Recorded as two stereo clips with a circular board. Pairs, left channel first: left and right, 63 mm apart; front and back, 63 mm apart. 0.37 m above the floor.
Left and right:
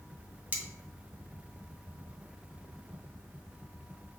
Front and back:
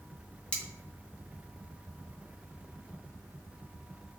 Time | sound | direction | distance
0.5 | cutlery clinking | 55° right | 0.7 m